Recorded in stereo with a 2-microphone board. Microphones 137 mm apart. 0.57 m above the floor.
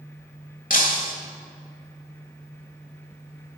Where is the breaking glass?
85° left, 1.2 m.